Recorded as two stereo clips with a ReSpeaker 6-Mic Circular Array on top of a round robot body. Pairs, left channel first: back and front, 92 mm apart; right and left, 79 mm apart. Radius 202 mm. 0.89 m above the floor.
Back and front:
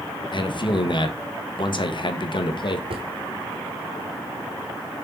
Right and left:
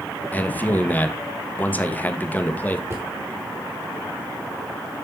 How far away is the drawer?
About 0.9 m.